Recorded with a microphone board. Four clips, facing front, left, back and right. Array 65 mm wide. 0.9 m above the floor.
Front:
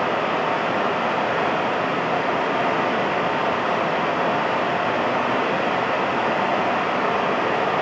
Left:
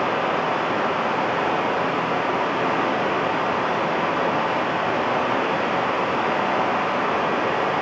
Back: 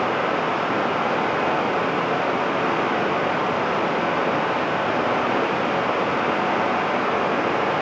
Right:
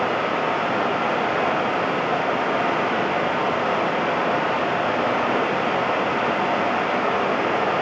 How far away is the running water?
About 3.5 m.